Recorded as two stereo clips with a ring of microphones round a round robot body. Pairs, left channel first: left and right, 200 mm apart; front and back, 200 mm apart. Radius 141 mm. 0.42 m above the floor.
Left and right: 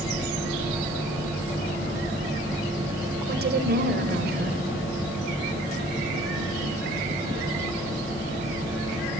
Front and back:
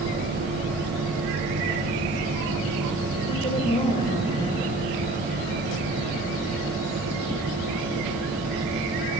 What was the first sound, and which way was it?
A woman speaking, 65° right.